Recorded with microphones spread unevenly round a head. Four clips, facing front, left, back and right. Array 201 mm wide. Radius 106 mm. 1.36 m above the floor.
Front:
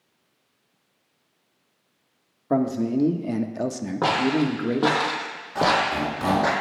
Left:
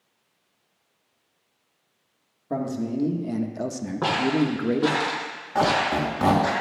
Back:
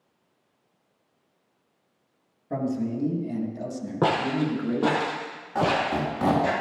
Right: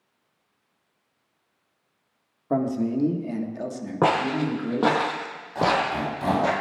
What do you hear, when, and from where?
2.5 s a man speaking: 25° right, 1.5 m; by 5.0 s 50° left, 1.6 m
4.0 s footsteps: 110° right, 2 m; by 6.5 s 25° right, 3 m
5.5 s a squeak: 110° left, 3.5 m